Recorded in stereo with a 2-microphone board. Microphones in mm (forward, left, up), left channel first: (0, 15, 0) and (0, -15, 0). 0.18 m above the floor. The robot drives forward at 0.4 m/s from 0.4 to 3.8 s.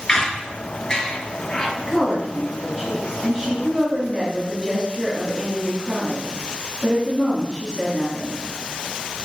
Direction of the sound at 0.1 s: 25° left (ahead or behind).